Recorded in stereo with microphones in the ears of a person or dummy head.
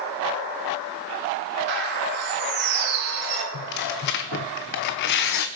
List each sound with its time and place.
1.7 s a bird: 60° right (ahead or behind), 2.5 m
3.5 s tearing paper: 55° left (ahead or behind), 0.9 m